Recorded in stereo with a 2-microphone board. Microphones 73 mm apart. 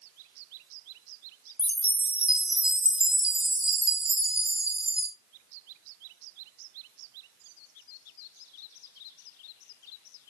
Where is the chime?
15° right (ahead or behind), 0.9 m.